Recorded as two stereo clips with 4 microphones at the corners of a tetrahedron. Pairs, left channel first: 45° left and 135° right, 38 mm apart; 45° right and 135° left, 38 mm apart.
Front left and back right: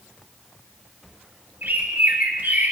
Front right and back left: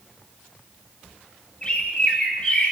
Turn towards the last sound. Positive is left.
turn(degrees=-105)